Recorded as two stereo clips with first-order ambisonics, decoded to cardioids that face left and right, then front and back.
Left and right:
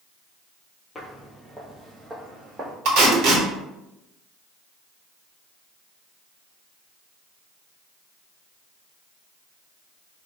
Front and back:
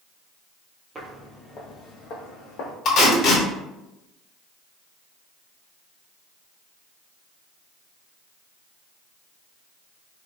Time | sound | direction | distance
0.9 | footsteps | 140° left | 0.5 m
2.9 | tape being pulled | 55° right | 0.9 m